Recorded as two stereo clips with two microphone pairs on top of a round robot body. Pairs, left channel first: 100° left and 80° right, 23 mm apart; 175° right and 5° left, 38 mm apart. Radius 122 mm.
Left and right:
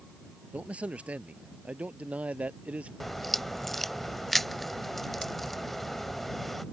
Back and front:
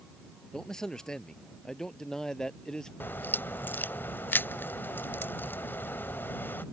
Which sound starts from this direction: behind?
A crack, at 3.0 s.